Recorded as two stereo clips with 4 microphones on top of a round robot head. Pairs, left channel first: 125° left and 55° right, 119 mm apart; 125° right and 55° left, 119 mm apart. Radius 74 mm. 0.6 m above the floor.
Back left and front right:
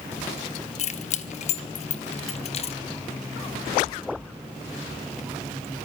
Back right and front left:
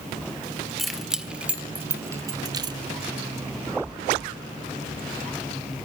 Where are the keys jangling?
145° left, 1.6 m; by 2.8 s 100° left, 1.2 m.